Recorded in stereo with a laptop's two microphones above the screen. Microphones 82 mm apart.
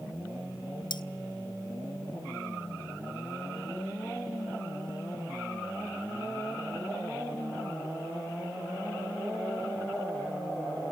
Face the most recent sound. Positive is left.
turn(degrees=60)  # may be behind; listen again after turning